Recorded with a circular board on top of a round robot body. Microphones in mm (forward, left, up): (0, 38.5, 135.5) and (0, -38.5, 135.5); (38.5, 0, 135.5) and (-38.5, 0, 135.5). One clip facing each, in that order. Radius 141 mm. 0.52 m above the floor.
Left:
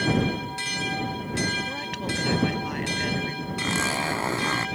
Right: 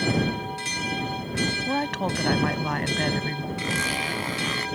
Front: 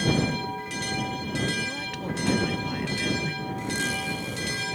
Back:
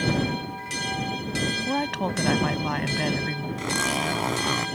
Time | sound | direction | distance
1.7 | a woman speaking | 140° right | ?
3.6 | a zipper | 155° left | ?